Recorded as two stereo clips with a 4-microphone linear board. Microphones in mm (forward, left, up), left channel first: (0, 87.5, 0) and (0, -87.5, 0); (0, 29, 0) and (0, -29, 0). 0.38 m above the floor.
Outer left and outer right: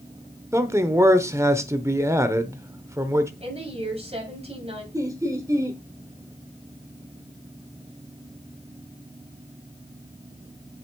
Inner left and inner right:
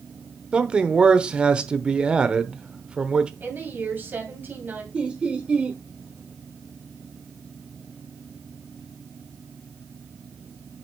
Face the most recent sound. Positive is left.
turn(degrees=-20)  # may be behind; listen again after turning